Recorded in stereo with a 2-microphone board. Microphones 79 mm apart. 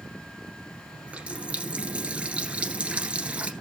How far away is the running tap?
About 1.8 m.